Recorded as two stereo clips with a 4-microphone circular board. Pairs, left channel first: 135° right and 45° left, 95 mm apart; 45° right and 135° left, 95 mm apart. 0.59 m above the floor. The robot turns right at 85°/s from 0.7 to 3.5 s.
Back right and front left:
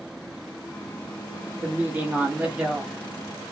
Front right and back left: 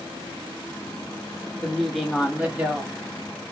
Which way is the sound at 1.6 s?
20° left.